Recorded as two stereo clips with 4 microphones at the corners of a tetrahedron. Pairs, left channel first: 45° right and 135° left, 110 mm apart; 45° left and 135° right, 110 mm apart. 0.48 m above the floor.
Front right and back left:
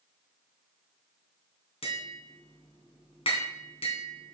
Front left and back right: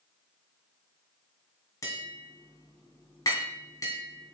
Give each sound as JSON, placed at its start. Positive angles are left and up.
{"t": 1.8, "sound": "tapping", "azimuth_deg": -15, "distance_m": 3.0}